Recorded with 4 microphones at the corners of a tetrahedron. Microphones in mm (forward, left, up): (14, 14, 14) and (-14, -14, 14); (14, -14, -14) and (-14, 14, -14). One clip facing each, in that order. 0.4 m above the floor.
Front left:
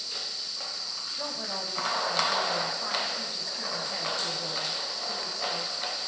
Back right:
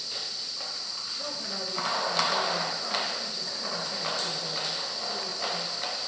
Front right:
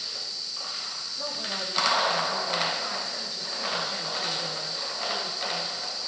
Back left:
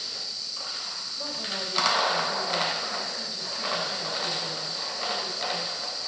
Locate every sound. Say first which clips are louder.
1.2 s a woman speaking: front left 2 dB, front right 1 dB; 40° left, 4 m